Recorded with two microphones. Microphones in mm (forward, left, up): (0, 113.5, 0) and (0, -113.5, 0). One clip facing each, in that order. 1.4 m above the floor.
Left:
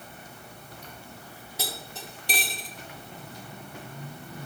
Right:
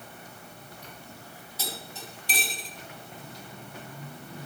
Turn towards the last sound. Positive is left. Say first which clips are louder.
# left 2 dB
turn(degrees=60)  # may be behind; listen again after turning